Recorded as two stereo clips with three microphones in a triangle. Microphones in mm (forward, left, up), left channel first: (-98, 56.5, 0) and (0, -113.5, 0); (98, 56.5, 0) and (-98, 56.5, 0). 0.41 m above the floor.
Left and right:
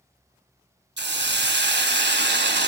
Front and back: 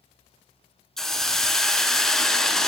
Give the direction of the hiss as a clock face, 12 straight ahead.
3 o'clock.